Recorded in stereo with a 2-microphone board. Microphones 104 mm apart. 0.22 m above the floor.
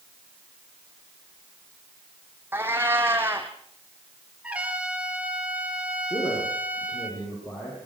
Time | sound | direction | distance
2.5 | a cat meowing | 20° right (ahead or behind) | 2.5 m
4.4 | a trumpet | 10° right (ahead or behind) | 3 m
6.1 | a man speaking | 45° left (ahead or behind) | 9.5 m